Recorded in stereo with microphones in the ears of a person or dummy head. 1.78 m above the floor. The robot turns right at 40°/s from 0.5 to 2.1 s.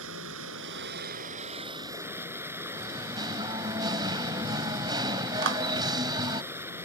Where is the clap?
65° right (ahead or behind).